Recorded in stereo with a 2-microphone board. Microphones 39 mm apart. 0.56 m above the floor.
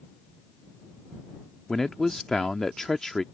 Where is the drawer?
I don't hear a drawer.